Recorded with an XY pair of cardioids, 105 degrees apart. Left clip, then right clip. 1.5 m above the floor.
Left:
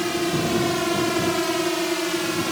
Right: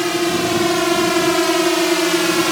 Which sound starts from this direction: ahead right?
A drone, at 0.0 s.